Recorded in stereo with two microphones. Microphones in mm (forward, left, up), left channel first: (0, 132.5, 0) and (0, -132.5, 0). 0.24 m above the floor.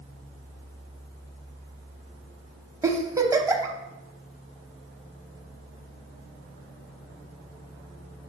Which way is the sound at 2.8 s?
10° right (ahead or behind).